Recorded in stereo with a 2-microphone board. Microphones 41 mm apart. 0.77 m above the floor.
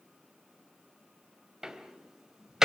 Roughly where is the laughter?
No laughter in this recording.